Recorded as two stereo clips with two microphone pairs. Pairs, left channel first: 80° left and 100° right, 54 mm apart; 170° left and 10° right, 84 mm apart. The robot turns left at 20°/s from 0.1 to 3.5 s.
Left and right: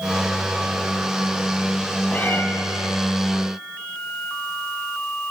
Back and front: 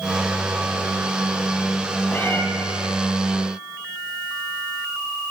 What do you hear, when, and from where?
2.1 s a cat meowing: 120° left, 1.8 m; by 2.4 s 115° left, 1.8 m